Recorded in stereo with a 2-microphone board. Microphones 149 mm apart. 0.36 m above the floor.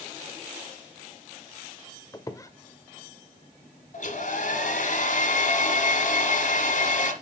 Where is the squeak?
25° left (ahead or behind), 0.6 m.